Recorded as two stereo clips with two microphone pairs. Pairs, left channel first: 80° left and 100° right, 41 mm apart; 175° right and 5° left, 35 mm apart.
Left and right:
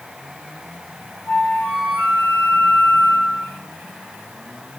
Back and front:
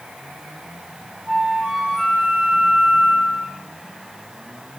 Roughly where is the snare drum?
No snare drum in this recording.